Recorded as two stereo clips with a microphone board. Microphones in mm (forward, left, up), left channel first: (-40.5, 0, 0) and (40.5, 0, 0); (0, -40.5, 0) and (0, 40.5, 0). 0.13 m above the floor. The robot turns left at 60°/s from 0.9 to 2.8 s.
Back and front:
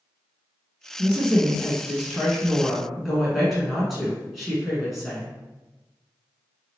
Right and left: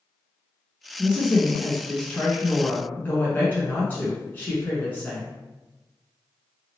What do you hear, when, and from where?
1.0 s a woman speaking: 25° left, 1.1 m; by 5.3 s 85° right, 1.1 m